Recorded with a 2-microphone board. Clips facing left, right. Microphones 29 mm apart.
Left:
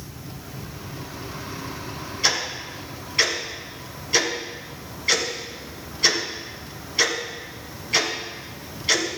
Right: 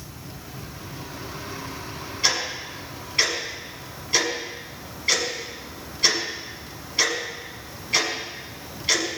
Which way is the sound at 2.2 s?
5° right (ahead or behind).